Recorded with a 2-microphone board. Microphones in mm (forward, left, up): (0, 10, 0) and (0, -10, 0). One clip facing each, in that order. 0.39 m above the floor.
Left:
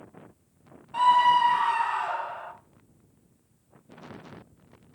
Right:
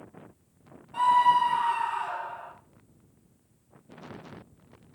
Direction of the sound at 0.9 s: 25° left (ahead or behind).